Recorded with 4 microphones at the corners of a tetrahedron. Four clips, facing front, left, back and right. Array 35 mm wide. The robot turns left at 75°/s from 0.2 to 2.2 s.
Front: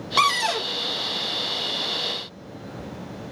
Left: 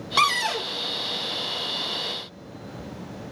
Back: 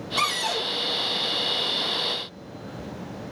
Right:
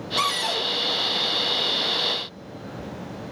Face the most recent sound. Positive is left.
turn(degrees=-105)